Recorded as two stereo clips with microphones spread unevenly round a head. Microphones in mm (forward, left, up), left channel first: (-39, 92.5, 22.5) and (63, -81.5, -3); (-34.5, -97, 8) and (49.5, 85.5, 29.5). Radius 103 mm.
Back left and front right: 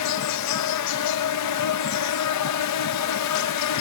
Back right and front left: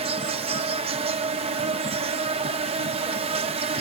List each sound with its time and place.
0.0 s an insect: 130° left